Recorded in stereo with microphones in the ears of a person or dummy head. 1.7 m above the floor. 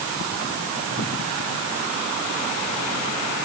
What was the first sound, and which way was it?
Only background noise.